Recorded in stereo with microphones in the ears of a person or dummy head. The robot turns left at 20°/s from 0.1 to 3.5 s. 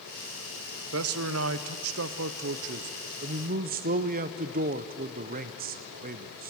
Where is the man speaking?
85° right, 0.6 m; by 6.5 s 135° right, 0.6 m.